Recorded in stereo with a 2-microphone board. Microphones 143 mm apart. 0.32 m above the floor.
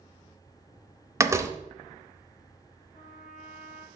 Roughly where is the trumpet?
Left.